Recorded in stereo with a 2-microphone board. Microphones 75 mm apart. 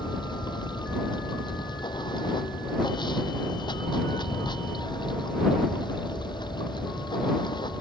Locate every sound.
0.0 s running water: 75° left (ahead or behind)